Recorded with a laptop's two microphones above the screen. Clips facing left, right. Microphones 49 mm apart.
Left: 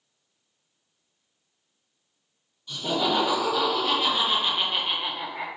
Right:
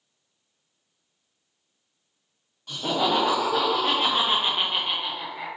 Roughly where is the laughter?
Right.